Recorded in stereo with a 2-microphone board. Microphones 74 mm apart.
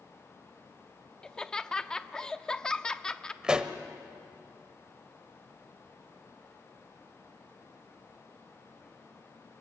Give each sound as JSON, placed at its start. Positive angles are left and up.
{"t": 1.2, "sound": "laughter", "side_deg": 10, "distance_m": 0.6}
{"t": 3.4, "sound": "a pop", "side_deg": -10, "distance_m": 1.0}